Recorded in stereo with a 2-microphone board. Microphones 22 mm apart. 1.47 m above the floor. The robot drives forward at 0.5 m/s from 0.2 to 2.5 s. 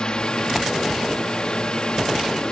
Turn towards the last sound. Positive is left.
turn(degrees=45)  # may be behind; listen again after turning